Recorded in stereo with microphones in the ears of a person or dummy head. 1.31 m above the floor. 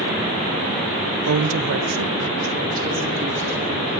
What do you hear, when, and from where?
1.3 s a woman speaking: 85° right, 1.0 m; by 4.0 s 35° right (ahead or behind), 4 m